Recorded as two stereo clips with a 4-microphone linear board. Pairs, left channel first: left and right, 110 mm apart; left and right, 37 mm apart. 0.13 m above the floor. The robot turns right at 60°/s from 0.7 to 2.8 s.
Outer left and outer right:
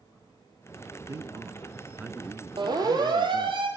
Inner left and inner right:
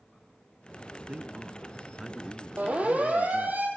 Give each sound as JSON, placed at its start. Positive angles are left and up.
{"t": 1.1, "sound": "a man speaking", "azimuth_deg": -85, "distance_m": 1.4}
{"t": 2.6, "sound": "a siren", "side_deg": -45, "distance_m": 4.5}